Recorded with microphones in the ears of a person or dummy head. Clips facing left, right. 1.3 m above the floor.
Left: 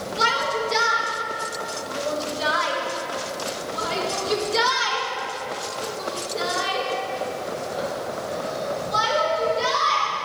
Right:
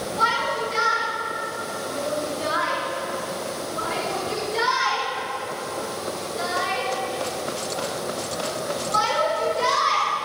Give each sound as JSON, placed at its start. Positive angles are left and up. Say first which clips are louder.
{"t": 0.2, "sound": "a shout", "louder": "left 3 dB", "side_deg": 85, "distance_m": 6.0}